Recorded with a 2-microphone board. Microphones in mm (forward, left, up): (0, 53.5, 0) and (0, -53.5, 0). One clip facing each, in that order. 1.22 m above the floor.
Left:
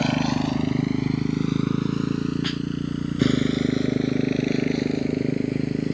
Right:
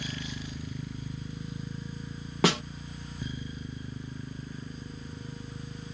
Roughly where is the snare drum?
Right.